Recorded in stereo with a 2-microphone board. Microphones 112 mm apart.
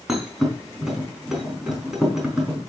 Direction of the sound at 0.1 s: 5° right (ahead or behind).